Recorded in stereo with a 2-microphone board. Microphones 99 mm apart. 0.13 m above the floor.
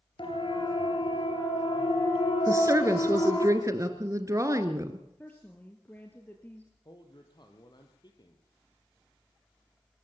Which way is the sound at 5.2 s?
15° left (ahead or behind).